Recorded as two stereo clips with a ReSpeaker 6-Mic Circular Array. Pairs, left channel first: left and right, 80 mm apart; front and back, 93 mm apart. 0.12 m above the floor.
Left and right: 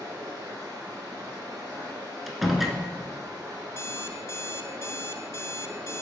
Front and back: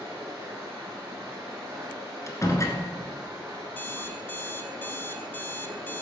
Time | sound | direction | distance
0.0 | running water | 125° right | 3 m
2.3 | a door slam | 5° right | 0.9 m
3.7 | an alarm clock | 55° left | 0.6 m